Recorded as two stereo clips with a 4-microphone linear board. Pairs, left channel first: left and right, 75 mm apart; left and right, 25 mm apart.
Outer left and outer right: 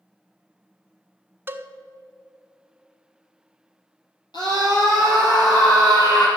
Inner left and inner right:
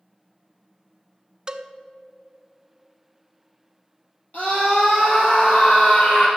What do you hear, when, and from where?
1.5 s a cowbell: 30° right (ahead or behind), 0.6 m
4.3 s a scream: 65° left (ahead or behind), 3 m